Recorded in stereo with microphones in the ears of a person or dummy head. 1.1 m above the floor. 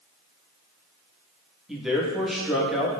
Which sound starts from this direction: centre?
A man speaking, at 1.7 s.